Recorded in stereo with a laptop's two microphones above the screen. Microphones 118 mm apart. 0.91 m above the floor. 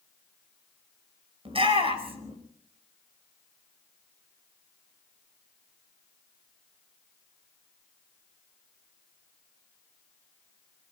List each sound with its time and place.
1.4 s a shout: 50° right (ahead or behind), 5 m